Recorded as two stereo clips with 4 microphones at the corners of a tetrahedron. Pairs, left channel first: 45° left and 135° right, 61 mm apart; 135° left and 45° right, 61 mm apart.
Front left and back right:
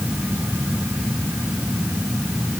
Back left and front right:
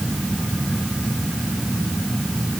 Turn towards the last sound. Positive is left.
No sound to turn to.